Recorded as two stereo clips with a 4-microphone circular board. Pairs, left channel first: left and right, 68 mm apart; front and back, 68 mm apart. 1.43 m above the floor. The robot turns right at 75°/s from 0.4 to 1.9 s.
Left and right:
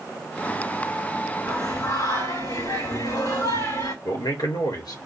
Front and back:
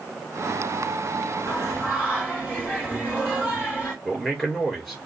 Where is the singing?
30° left, 3.5 m; by 4.0 s 65° left, 3.5 m.